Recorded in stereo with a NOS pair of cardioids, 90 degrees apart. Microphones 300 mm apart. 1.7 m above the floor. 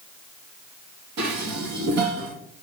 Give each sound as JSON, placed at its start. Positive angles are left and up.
{"t": 1.2, "sound": "dishes clattering", "azimuth_deg": -70, "distance_m": 2.0}